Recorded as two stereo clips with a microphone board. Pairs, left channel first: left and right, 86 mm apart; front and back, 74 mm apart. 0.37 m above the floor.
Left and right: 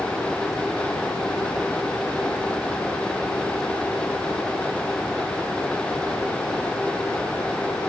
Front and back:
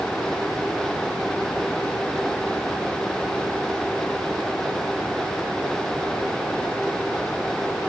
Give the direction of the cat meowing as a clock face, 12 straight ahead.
I don't hear a cat meowing.